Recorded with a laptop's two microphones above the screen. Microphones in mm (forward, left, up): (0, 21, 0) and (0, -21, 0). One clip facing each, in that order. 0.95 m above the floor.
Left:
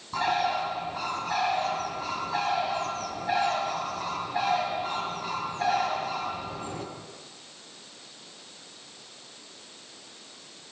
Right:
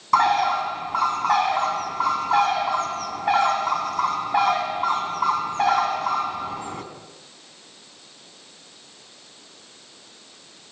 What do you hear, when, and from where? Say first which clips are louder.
0.1 s a bird: right 8 dB; 85° right, 4 m